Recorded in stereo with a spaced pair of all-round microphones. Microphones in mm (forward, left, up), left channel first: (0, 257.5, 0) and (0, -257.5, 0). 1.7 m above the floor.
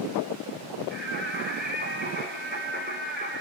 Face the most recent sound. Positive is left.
turn(degrees=-20)  # may be behind; listen again after turning